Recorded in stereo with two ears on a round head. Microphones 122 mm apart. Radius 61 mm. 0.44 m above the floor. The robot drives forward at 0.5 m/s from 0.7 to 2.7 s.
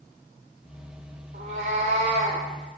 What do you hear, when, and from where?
1.3 s a cat meowing: 60° right (ahead or behind), 1.3 m; by 2.5 s 45° right (ahead or behind), 1.6 m